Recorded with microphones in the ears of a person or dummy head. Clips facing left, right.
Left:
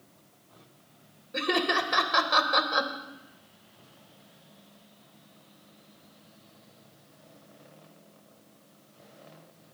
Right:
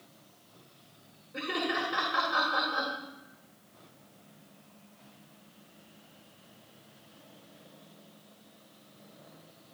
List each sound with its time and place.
1.3 s laughter: 70° left (ahead or behind), 2 m